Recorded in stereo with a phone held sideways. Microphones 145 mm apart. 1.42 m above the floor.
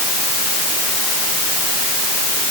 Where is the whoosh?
No whoosh in this recording.